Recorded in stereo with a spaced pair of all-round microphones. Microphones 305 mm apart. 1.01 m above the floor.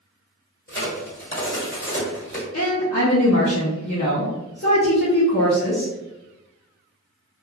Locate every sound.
0.7 s a crack: 40° left (ahead or behind), 1.4 m
2.5 s a woman speaking: 55° left (ahead or behind), 0.7 m